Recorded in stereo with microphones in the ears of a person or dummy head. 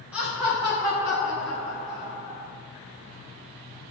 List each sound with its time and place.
0.1 s laughter: 10° right (ahead or behind), 1.1 m; by 2.5 s 50° right (ahead or behind), 2.5 m